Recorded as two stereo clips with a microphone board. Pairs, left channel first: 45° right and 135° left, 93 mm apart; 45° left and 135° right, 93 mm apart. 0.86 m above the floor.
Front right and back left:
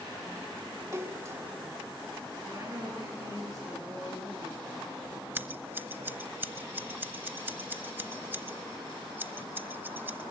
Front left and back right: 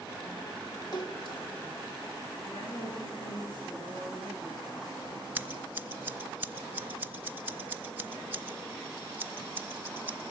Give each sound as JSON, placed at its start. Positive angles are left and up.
{"t": 0.9, "sound": "a splash", "azimuth_deg": 80, "distance_m": 1.8}
{"t": 2.5, "sound": "a woman speaking", "azimuth_deg": 75, "distance_m": 10.0}
{"t": 5.3, "sound": "scissors", "azimuth_deg": 175, "distance_m": 0.9}